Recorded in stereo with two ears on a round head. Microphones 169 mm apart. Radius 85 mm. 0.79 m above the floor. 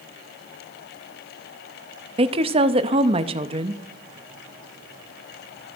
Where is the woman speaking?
30° right (ahead or behind), 0.6 m.